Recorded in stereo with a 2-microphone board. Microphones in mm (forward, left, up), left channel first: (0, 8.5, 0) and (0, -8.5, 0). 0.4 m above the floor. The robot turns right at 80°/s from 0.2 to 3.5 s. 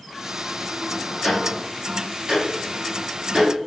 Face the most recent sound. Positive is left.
turn(degrees=-55)  # may be behind; listen again after turning